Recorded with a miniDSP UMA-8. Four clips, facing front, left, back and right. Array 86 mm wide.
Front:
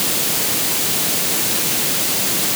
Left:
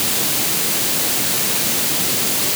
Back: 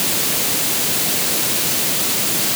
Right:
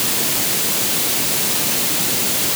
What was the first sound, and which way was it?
Only background noise.